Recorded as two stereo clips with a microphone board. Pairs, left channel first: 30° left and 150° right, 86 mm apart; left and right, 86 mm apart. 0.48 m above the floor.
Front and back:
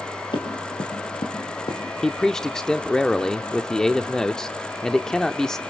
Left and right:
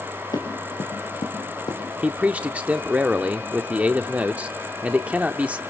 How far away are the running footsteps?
About 4.5 m.